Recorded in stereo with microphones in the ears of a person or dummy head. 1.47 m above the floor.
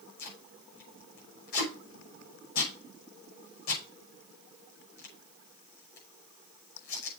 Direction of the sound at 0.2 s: 50° left (ahead or behind).